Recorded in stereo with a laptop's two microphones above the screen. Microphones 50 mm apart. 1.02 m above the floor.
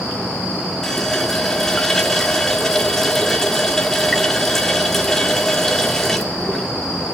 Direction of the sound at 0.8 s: 10° left (ahead or behind).